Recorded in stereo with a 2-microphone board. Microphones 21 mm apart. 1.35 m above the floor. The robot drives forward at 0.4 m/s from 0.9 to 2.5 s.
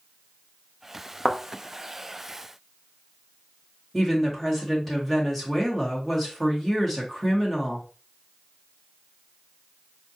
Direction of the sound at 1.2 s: 30° left (ahead or behind).